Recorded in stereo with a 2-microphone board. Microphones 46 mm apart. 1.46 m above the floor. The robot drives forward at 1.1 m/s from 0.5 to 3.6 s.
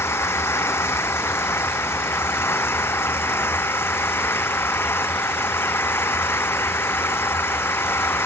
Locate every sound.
0.0 s an engine running: 65° left (ahead or behind); by 8.3 s 60° left (ahead or behind)